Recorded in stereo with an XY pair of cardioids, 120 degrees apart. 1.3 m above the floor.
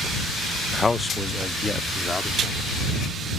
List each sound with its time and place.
0.7 s a man speaking: 20° left